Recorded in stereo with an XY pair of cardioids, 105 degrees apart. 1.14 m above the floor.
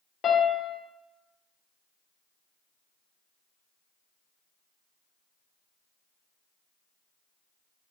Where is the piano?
55° left, 0.6 m.